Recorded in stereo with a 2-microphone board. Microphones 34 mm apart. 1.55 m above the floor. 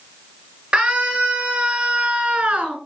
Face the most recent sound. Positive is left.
turn(degrees=-35)  # may be behind; listen again after turning